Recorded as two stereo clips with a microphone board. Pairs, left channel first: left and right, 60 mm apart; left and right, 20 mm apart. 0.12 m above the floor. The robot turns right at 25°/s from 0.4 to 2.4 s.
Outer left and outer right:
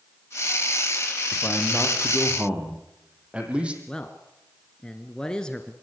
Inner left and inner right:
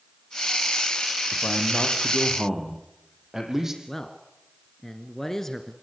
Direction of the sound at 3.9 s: 15° left (ahead or behind).